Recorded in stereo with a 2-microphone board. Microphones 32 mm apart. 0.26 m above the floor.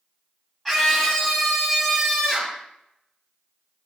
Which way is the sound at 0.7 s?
5° left (ahead or behind).